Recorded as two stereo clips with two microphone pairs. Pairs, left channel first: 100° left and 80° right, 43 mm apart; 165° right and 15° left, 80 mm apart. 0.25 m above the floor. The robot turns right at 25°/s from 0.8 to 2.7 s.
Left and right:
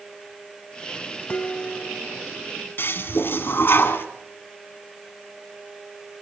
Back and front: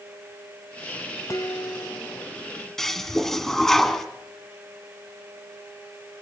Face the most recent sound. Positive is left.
turn(degrees=110)